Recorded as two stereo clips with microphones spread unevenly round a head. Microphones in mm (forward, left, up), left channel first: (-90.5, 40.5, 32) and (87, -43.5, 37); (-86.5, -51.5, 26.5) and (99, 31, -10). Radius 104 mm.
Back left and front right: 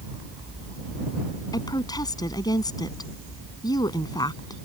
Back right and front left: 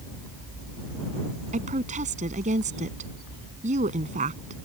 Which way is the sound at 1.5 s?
85° left.